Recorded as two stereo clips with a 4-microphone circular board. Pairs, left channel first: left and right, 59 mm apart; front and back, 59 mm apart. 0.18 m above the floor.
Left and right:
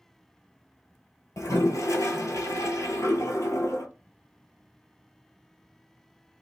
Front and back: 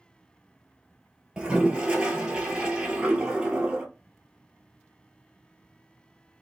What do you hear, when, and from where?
1.4 s a toilet flushing: 105° left, 0.6 m